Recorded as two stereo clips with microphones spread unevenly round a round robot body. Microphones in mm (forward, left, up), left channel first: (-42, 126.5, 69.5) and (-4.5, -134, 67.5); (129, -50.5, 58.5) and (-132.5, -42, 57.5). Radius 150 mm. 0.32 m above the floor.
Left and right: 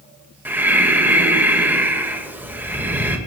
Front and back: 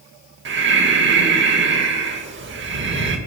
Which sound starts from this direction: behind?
Breathing, at 0.5 s.